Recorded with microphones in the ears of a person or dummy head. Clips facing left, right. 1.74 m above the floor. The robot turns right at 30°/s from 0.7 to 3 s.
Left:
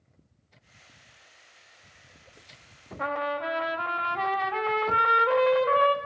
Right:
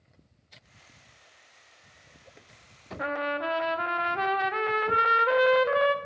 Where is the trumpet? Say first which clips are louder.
Even; 20° right (ahead or behind), 0.7 m.